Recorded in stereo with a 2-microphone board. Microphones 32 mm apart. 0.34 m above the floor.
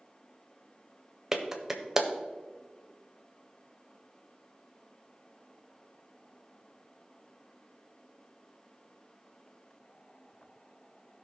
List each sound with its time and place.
1.3 s a clap: 15° right (ahead or behind), 1.1 m